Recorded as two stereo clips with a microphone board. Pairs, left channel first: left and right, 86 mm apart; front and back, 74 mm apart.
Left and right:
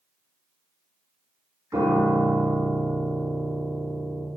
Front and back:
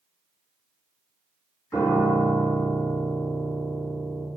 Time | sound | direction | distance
1.7 | a piano | 35° right | 2 m